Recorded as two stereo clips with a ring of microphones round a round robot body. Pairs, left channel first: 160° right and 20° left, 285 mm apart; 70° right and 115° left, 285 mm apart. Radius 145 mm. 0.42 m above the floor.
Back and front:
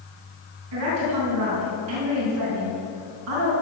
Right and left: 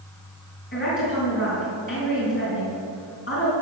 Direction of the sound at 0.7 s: 10° right.